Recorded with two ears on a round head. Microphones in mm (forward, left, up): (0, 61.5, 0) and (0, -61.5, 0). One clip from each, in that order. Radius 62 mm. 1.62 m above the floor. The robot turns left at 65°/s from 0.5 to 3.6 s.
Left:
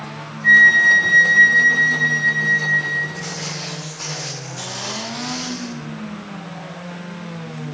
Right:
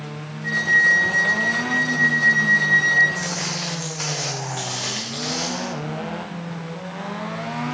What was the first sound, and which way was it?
A flute, 130° left.